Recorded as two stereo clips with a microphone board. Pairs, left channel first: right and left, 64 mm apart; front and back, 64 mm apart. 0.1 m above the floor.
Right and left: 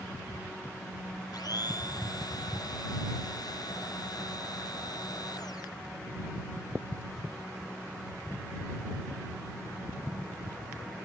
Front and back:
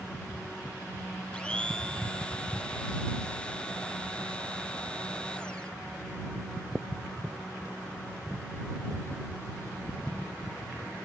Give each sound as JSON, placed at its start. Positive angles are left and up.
{"t": 1.3, "sound": "a blender", "azimuth_deg": -75}